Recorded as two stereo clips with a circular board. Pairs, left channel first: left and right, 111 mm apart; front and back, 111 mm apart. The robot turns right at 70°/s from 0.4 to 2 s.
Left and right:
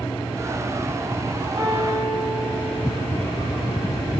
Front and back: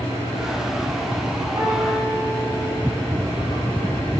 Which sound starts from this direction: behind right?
A piano, at 1.6 s.